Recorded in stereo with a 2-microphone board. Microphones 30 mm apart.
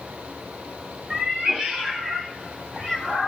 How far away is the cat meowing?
About 1.5 m.